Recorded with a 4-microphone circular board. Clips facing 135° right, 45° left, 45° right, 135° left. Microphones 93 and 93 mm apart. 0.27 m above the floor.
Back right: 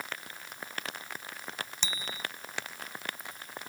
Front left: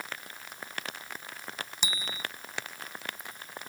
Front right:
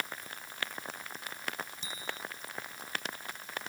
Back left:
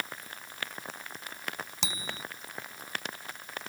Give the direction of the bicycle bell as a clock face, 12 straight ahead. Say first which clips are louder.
Front left 1 dB, back left 3 dB; 8 o'clock.